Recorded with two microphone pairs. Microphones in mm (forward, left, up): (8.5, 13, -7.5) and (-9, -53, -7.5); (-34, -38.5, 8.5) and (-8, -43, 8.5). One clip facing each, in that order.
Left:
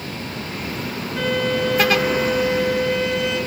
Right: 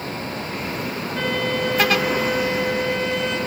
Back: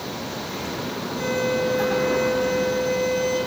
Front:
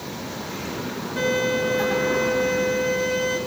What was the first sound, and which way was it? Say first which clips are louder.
A violin: left 3 dB, front 1 dB; 10° right.